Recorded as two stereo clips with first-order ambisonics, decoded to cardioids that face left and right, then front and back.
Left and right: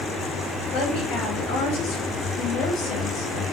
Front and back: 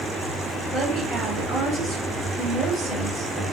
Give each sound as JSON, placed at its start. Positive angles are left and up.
{"t": 0.7, "sound": "a woman speaking", "azimuth_deg": 115, "distance_m": 1.9}